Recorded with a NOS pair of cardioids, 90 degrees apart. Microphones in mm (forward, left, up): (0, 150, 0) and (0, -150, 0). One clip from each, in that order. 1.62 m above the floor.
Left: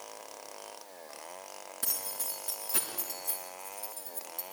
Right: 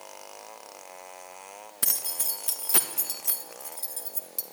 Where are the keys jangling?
50° right, 1.5 m.